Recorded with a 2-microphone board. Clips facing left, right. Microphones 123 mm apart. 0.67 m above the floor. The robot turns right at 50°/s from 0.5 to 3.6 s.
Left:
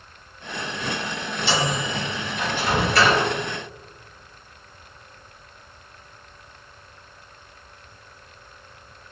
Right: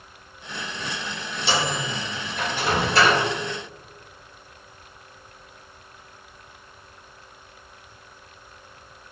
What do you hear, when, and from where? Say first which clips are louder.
1.5 s a microwave: left 1 dB; 60° right (ahead or behind), 1.3 m; by 3.2 s 15° right (ahead or behind), 1.3 m